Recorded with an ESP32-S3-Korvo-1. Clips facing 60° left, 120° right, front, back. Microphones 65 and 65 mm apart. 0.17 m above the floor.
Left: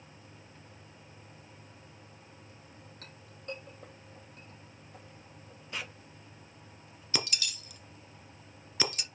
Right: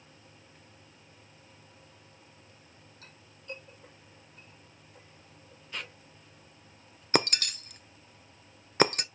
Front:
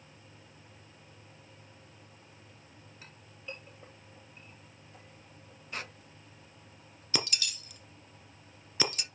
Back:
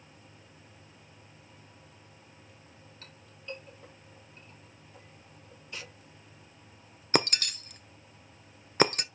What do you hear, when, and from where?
3.0 s a clink: 80° left, 4.5 m
5.7 s a squeak: 25° right, 0.5 m
7.1 s breaking glass: 150° right, 0.6 m